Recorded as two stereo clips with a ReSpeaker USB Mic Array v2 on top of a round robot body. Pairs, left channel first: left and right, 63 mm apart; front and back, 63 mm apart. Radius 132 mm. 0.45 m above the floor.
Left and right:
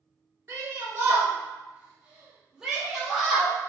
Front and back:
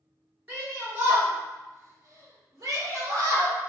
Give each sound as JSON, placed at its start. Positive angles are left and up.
{"t": 0.5, "sound": "a shout", "azimuth_deg": -125, "distance_m": 2.0}